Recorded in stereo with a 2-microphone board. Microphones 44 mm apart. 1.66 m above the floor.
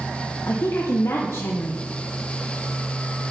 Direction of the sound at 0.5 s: 80° left.